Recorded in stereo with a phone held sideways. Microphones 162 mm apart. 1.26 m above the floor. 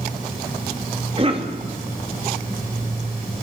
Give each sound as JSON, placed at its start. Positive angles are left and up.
{"t": 1.2, "sound": "a cough", "side_deg": -35, "distance_m": 3.0}